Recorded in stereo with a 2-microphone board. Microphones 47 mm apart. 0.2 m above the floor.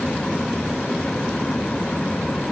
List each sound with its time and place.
Only background noise.